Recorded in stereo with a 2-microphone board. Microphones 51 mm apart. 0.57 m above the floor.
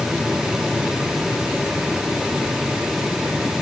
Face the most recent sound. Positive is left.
No sound to turn to.